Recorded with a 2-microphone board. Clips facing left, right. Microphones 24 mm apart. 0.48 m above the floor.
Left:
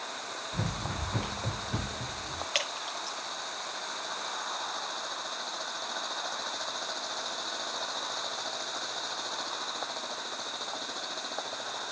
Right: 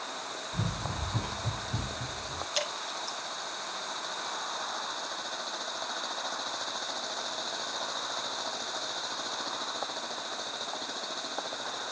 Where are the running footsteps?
50° left (ahead or behind), 2.0 m; by 2.5 s 85° left, 3.5 m.